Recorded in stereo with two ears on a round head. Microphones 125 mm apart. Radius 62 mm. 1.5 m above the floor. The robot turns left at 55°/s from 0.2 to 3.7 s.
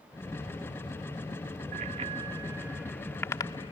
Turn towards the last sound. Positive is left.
turn(degrees=40)  # may be behind; listen again after turning